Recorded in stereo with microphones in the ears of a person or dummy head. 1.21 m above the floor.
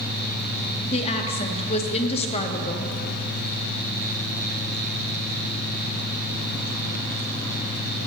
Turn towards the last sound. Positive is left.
turn(degrees=30)  # may be behind; listen again after turning